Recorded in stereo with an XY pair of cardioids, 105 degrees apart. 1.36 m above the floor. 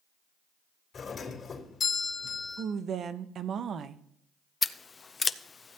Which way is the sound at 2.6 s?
60° right.